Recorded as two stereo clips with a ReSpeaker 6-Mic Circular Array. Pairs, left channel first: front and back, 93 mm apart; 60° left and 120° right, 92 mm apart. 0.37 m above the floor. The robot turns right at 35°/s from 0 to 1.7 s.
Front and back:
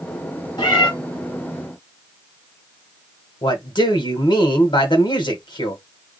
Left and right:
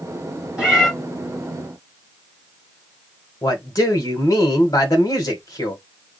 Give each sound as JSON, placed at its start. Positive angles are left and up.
{"t": 0.6, "sound": "a cat meowing", "azimuth_deg": -40, "distance_m": 2.5}
{"t": 3.4, "sound": "a man speaking", "azimuth_deg": 15, "distance_m": 1.8}